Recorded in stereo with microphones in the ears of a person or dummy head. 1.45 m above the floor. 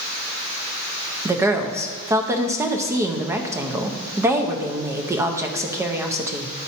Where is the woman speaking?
15° right (ahead or behind), 0.6 m.